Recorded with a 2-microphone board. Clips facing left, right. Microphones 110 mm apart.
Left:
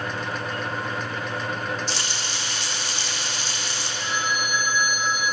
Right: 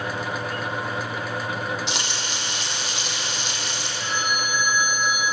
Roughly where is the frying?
Right.